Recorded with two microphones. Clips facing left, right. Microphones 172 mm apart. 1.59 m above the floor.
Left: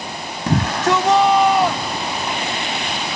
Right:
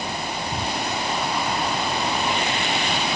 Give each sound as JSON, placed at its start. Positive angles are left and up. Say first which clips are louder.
{"t": 0.5, "sound": "a shout", "louder": "left 13 dB", "side_deg": 85}